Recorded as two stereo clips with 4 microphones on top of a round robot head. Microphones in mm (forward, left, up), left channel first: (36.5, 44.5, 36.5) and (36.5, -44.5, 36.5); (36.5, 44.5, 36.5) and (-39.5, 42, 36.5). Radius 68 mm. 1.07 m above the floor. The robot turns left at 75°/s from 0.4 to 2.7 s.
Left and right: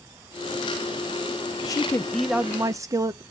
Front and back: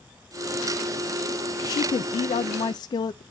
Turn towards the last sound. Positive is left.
turn(degrees=-35)